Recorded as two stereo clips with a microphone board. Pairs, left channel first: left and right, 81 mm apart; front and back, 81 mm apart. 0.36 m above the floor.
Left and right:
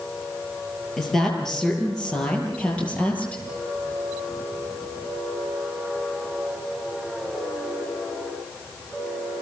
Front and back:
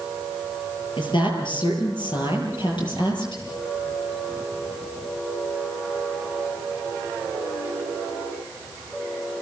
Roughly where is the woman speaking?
Ahead.